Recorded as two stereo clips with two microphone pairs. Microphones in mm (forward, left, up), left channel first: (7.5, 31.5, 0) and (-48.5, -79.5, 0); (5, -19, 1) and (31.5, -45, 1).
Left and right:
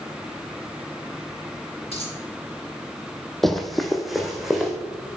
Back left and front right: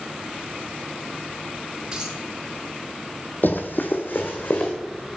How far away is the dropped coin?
About 3.5 m.